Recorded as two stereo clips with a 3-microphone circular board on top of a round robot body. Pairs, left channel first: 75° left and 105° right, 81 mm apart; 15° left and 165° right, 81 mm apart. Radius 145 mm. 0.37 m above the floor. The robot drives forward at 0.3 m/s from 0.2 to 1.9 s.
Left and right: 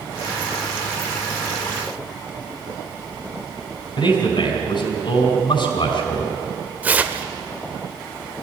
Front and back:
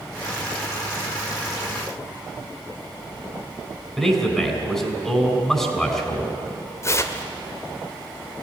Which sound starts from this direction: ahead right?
Tearing paper, at 6.8 s.